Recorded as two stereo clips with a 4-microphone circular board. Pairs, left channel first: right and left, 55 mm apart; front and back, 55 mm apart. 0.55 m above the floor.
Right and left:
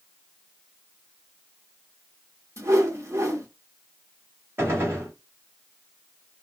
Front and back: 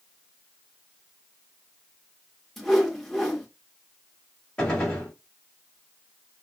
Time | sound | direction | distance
2.6 | a whoosh | 85° left | 1.0 m
4.6 | a gunshot | 70° left | 1.7 m